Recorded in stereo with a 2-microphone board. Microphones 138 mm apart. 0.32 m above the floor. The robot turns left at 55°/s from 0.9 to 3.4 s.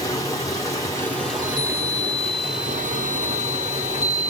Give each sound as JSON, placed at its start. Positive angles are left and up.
{"t": 0.0, "sound": "running water", "azimuth_deg": 25, "distance_m": 2.0}
{"t": 1.3, "sound": "a chime", "azimuth_deg": 20, "distance_m": 1.4}